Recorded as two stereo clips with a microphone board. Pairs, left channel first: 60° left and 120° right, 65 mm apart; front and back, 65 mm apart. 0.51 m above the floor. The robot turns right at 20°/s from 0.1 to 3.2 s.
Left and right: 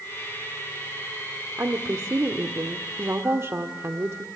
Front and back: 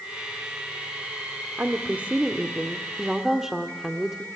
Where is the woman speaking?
135° right, 1.1 m; by 4.2 s 100° right, 1.1 m.